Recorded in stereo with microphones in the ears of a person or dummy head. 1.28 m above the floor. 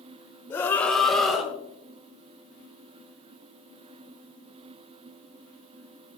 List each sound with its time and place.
0.5 s a scream: 15° left (ahead or behind), 1.1 m; by 1.5 s centre (ahead or behind), 1.9 m